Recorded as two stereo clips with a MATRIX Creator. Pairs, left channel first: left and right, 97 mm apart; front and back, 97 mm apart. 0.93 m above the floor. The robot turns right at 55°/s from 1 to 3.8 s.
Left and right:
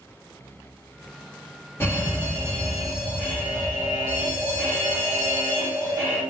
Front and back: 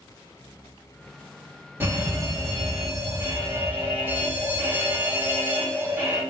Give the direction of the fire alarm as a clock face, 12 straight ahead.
8 o'clock.